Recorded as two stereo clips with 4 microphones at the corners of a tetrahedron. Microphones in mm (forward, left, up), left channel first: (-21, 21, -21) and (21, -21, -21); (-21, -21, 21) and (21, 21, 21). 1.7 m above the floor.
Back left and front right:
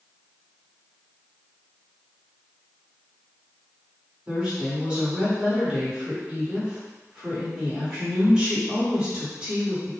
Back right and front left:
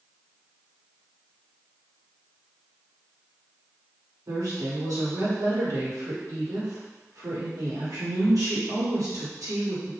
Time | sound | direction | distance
4.3 | a woman speaking | 30° left | 1.4 m